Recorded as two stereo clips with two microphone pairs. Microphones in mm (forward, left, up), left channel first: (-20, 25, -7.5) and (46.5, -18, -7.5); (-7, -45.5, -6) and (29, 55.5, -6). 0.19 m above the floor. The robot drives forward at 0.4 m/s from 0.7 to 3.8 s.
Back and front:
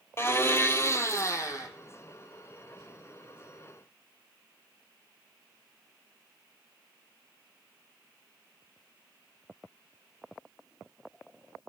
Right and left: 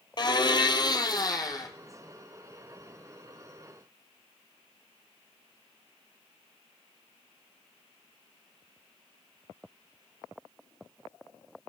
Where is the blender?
155° right, 0.7 m; by 1.7 s 165° right, 1.0 m.